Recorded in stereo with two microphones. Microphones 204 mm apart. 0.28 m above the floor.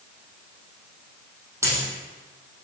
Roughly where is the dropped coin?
Centre.